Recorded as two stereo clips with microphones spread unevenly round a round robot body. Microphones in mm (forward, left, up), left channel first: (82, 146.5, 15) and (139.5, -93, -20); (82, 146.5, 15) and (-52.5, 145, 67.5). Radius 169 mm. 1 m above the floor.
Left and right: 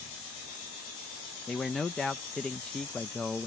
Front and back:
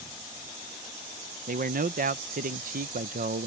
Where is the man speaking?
160° right.